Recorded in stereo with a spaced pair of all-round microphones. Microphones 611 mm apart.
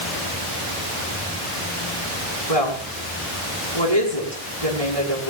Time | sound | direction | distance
2.5 | a woman speaking | 60° right (ahead or behind) | 9 m